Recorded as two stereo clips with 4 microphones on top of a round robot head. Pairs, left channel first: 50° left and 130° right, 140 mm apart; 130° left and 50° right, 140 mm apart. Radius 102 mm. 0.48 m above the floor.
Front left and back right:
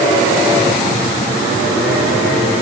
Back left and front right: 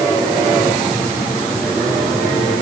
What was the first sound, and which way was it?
Only background noise.